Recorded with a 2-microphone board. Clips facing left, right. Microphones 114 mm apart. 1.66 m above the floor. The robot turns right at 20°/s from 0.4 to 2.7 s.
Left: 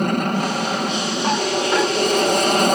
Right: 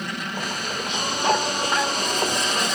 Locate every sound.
0.0 s an aircraft: 65° left; by 2.8 s 115° left